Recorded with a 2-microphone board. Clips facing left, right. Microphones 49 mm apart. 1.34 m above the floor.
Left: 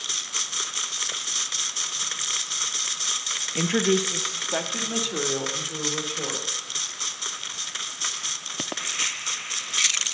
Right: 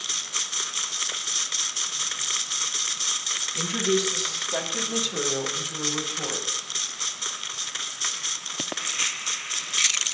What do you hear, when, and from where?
3.5 s a woman speaking: 45° left (ahead or behind), 0.8 m; by 6.5 s 25° left (ahead or behind), 4.5 m